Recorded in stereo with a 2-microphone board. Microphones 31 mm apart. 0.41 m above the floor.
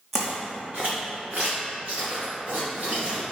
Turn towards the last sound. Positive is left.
turn(degrees=-50)  # may be behind; listen again after turning